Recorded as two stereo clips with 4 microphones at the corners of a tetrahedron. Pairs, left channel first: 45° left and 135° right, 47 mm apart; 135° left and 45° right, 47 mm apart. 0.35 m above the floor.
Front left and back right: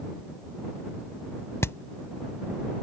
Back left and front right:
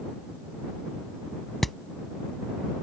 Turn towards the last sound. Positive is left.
turn(degrees=45)